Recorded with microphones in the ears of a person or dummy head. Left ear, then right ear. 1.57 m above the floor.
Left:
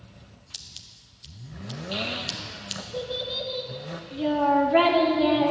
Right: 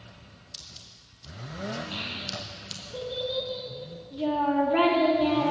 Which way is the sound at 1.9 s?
5° left (ahead or behind).